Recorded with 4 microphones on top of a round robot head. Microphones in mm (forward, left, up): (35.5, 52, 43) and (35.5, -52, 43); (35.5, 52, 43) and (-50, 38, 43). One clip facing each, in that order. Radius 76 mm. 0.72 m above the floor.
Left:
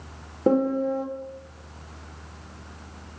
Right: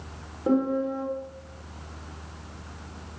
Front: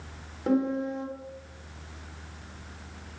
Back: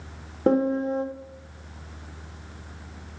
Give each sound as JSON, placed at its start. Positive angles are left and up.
{"t": 0.5, "sound": "a piano", "azimuth_deg": 145, "distance_m": 1.3}